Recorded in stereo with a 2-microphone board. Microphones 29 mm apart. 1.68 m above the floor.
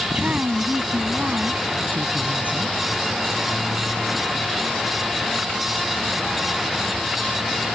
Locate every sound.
0.1 s a woman speaking: 65° right (ahead or behind); by 2.8 s 70° right (ahead or behind)